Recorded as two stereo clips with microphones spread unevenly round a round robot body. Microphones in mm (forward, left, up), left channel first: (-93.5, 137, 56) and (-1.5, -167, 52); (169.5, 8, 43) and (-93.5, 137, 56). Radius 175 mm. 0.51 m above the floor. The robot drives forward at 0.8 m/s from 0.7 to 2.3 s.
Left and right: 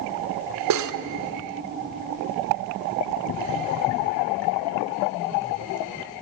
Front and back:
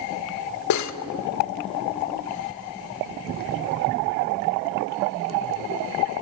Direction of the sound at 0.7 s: 40° right.